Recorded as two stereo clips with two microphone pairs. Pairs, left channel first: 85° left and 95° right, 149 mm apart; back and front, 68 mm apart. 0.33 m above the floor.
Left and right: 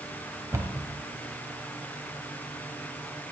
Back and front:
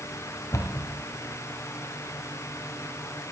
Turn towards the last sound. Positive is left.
turn(degrees=-160)